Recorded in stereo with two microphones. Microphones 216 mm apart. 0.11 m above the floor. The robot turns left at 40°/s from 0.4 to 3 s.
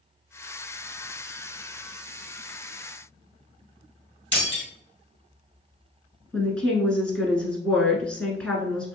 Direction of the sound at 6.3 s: 5° left (ahead or behind).